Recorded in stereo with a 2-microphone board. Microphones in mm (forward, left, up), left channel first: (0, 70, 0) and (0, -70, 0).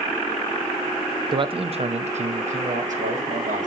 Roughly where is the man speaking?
Right.